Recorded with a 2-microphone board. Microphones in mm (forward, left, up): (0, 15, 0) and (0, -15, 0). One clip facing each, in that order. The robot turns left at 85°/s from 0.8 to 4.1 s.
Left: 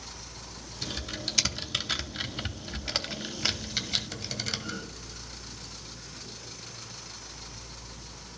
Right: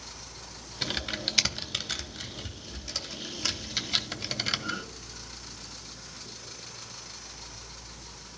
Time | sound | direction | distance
0.8 | typing on a keyboard | 50° right (ahead or behind) | 0.7 m